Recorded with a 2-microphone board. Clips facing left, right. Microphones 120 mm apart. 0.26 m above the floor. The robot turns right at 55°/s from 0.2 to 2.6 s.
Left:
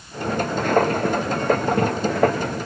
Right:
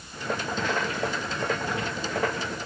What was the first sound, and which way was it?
Only background noise.